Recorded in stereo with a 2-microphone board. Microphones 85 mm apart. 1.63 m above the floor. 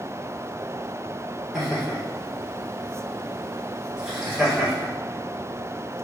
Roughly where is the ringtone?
No ringtone in this recording.